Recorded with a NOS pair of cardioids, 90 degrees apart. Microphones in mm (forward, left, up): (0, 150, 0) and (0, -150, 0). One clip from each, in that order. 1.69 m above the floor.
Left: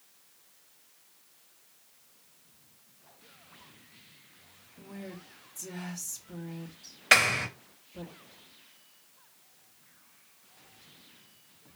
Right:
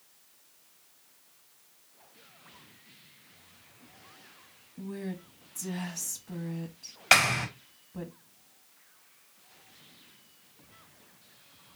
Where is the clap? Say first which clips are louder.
Even; 15° right, 3.5 m.